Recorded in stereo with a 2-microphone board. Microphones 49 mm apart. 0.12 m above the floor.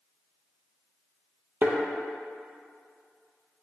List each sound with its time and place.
1.6 s a thud: 40° right (ahead or behind), 0.6 m